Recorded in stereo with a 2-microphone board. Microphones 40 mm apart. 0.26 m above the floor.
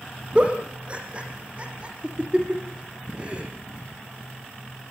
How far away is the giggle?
About 3.5 m.